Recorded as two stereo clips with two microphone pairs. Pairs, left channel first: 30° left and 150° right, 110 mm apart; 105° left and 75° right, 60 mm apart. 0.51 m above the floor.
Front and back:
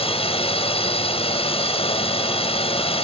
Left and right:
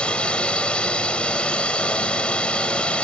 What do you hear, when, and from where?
0.0 s a drone: 35° left